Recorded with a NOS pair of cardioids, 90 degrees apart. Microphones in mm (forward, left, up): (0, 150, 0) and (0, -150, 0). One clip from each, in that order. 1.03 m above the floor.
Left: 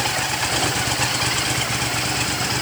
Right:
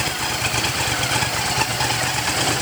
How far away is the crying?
No crying in this recording.